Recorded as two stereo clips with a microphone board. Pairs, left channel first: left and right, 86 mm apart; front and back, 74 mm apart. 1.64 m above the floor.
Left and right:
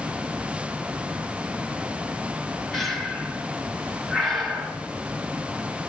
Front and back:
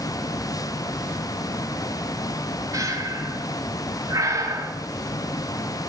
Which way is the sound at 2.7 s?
Straight behind.